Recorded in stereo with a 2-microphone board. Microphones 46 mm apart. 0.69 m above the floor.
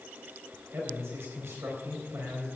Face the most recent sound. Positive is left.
turn(degrees=-70)  # may be behind; listen again after turning